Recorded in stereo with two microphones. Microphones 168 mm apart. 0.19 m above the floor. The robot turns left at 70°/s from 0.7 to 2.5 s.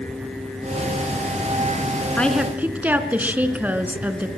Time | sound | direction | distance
2.2 | a woman speaking | 10° left (ahead or behind) | 2.5 m